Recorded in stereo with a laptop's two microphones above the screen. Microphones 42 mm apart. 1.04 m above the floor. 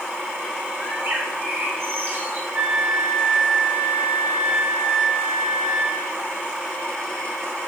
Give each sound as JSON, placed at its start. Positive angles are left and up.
{"t": 0.8, "sound": "a bird", "side_deg": -55, "distance_m": 5.0}
{"t": 2.5, "sound": "a flute", "side_deg": -30, "distance_m": 3.0}